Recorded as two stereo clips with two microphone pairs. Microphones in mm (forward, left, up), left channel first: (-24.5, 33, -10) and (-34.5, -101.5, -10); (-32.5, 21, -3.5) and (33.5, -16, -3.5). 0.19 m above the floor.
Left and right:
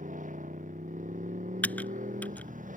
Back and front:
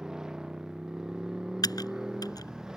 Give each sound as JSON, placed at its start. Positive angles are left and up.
{"t": 0.0, "sound": "a motorcycle", "azimuth_deg": -110}
{"t": 1.6, "sound": "typing on a keyboard", "azimuth_deg": 165}